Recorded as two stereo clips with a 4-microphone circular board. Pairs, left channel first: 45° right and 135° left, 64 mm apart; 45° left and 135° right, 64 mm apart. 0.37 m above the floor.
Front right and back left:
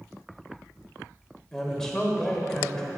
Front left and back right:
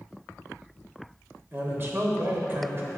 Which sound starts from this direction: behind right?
A man speaking, at 1.5 s.